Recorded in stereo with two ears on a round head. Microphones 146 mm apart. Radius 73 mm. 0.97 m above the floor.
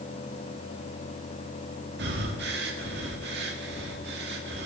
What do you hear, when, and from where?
2.0 s breathing: 65° right (ahead or behind), 2.0 m